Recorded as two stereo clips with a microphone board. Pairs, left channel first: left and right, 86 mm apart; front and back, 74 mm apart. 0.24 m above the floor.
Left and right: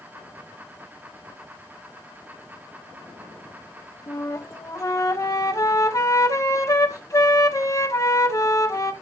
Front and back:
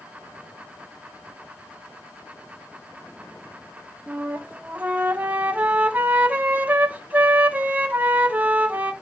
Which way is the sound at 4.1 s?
125° left.